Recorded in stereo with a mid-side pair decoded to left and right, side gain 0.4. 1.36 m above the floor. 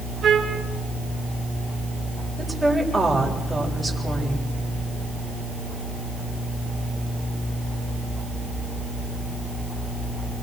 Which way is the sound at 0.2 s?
60° right.